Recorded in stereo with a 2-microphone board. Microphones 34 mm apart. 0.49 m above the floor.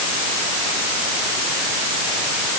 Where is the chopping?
No chopping in this recording.